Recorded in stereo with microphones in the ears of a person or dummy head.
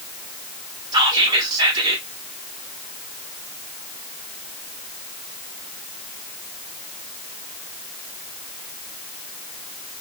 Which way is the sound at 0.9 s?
20° right (ahead or behind).